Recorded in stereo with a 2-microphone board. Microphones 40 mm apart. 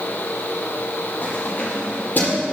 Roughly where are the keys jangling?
Left.